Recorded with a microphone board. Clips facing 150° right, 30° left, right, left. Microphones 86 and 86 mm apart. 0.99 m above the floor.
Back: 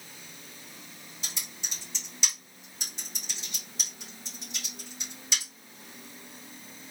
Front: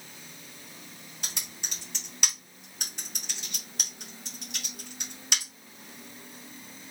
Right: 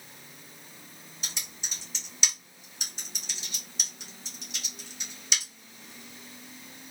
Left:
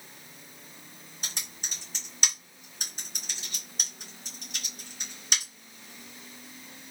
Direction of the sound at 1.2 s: 50° left.